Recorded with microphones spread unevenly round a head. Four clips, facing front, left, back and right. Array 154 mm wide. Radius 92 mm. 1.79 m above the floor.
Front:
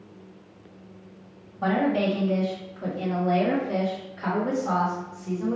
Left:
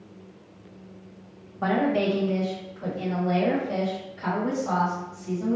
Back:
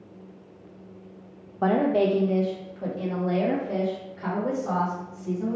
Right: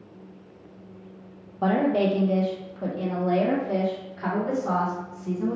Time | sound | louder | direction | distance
1.6 | a woman speaking | right 1 dB, back 2 dB | 165° right | 0.6 m